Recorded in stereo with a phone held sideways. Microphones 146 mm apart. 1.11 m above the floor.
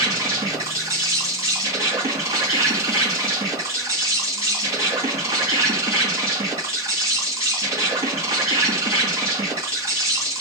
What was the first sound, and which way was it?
An insect, 20° right (ahead or behind).